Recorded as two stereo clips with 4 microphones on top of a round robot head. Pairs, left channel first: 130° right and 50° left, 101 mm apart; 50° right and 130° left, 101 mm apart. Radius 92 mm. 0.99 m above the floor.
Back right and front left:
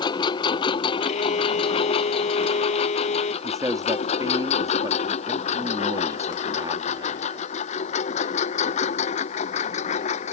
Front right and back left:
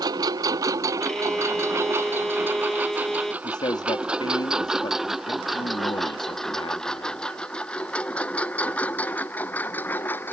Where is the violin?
140° right.